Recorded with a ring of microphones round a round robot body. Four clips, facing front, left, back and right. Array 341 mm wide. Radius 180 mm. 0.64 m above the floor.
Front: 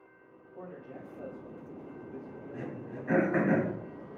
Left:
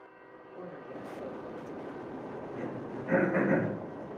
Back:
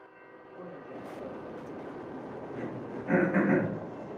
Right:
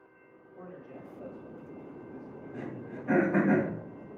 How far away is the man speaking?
About 2.5 m.